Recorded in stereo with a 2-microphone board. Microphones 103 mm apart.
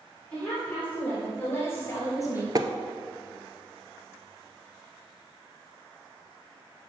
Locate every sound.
0.3 s a woman speaking: 10° left (ahead or behind), 3 m; by 2.5 s 35° left (ahead or behind), 1.5 m
2.5 s tapping: 40° right (ahead or behind), 0.5 m